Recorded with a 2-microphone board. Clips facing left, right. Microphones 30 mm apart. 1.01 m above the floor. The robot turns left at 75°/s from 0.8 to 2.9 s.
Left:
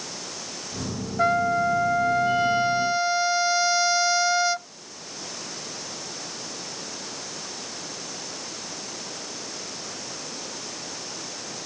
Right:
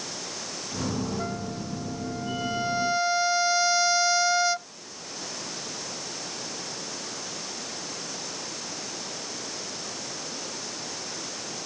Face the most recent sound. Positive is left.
turn(degrees=5)